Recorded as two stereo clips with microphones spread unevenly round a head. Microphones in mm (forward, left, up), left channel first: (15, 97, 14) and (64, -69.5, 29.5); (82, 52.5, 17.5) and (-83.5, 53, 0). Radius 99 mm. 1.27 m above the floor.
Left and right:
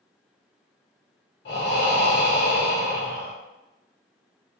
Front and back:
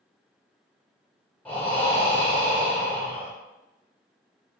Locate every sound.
1.4 s breathing: 80° left, 1.0 m